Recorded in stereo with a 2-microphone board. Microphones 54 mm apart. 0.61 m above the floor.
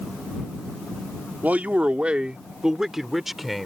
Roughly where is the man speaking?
Right.